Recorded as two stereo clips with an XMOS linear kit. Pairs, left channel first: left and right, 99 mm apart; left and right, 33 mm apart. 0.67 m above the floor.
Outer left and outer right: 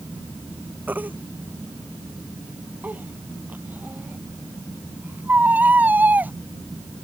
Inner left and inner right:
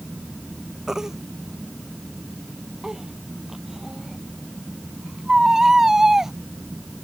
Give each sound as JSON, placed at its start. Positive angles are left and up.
{"t": 0.9, "sound": "a baby crying", "side_deg": -15}